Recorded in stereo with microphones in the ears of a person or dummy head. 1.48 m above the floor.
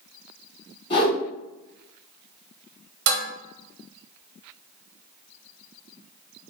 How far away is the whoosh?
About 1.9 m.